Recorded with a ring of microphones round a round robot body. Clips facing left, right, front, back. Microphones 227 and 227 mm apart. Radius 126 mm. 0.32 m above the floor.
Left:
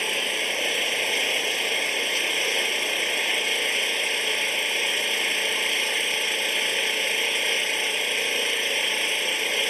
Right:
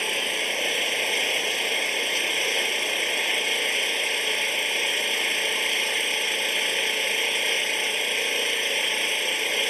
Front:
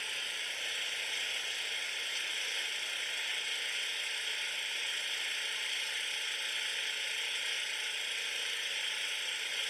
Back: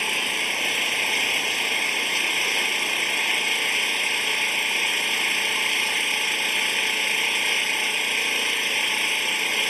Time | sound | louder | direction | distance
0.0 | an engine running | even, back 19 dB | straight behind | ?